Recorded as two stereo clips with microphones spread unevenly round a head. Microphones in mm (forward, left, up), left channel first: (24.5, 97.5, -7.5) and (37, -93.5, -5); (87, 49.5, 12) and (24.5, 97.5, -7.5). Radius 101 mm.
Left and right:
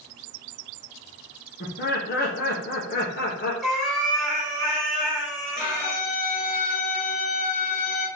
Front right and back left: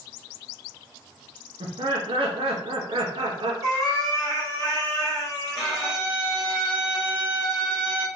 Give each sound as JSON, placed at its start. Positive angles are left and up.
{"t": 1.6, "sound": "laughter", "azimuth_deg": 135, "distance_m": 1.0}
{"t": 3.6, "sound": "a cat meowing", "azimuth_deg": -175, "distance_m": 1.4}
{"t": 5.5, "sound": "a violin", "azimuth_deg": 55, "distance_m": 2.0}